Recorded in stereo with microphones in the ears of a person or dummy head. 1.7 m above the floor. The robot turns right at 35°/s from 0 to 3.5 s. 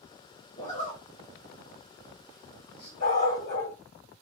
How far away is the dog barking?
About 3 m.